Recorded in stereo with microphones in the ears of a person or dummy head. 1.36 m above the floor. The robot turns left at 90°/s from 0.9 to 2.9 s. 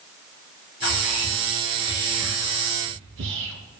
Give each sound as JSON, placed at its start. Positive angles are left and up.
{"t": 0.8, "sound": "whispering", "side_deg": 60, "distance_m": 1.9}